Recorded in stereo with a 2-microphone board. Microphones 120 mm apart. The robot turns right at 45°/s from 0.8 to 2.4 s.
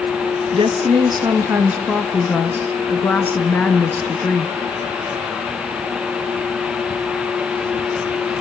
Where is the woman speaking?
55° right, 2 m; by 4.5 s 15° left, 2 m.